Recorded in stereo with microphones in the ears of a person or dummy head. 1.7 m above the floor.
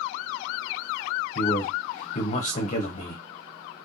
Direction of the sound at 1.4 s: 30° left (ahead or behind).